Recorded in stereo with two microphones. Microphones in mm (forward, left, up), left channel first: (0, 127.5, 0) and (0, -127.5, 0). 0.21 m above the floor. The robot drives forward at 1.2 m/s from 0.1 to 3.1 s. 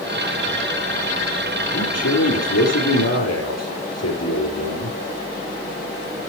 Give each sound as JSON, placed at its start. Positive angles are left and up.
{"t": 1.7, "sound": "a man speaking", "side_deg": 75, "distance_m": 6.0}